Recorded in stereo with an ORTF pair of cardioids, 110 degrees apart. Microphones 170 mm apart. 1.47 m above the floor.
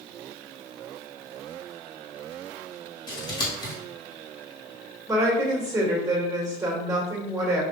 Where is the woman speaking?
20° right, 2.0 m.